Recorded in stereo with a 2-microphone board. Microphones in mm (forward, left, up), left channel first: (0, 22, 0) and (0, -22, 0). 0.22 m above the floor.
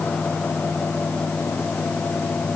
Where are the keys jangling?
No keys jangling in this recording.